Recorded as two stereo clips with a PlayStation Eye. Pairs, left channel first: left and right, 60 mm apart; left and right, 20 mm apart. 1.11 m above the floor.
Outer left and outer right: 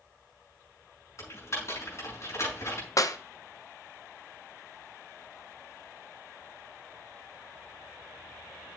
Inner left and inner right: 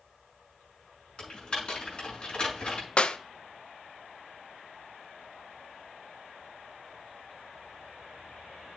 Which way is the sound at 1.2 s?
55° left (ahead or behind).